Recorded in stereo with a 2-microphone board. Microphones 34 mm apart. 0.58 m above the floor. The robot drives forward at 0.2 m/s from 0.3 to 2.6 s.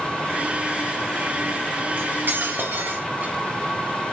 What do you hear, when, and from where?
2.0 s cutlery clinking: 70° right (ahead or behind), 0.8 m; by 3.3 s 65° right (ahead or behind), 0.8 m